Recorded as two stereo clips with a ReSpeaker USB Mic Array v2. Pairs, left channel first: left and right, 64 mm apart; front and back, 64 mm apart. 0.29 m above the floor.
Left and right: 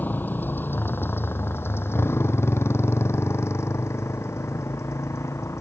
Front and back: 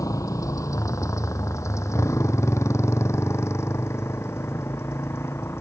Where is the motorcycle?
30° left; by 5.6 s 50° left.